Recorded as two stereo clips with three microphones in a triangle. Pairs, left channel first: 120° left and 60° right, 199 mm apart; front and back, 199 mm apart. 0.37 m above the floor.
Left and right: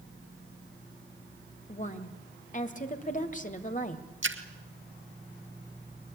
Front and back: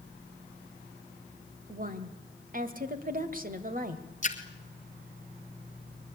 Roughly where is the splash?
Ahead right.